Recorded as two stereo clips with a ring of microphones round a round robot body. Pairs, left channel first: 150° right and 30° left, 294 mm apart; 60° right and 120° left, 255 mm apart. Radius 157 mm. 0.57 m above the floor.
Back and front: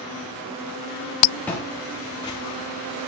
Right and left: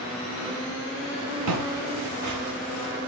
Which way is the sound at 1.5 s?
125° left.